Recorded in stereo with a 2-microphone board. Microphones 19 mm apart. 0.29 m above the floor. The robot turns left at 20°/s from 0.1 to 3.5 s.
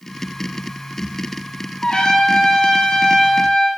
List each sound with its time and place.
1.8 s a trumpet: 110° left, 4.5 m; by 3.7 s 80° left, 4.5 m